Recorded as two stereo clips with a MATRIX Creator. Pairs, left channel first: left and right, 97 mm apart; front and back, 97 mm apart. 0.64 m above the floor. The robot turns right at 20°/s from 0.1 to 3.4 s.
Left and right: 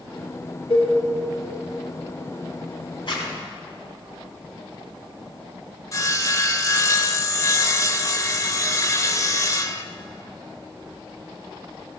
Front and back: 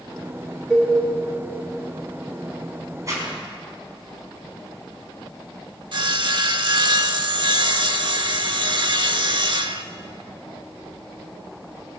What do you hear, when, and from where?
0.7 s a cowbell: 85° left, 5.5 m; by 0.9 s 90° left, 5.5 m
3.1 s a zipper: 125° left, 4 m
5.9 s sawing: 145° left, 0.7 m